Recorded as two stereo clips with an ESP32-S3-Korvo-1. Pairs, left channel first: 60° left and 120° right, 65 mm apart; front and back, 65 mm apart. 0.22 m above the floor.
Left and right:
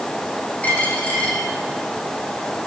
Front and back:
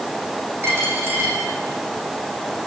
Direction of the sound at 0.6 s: 125° left.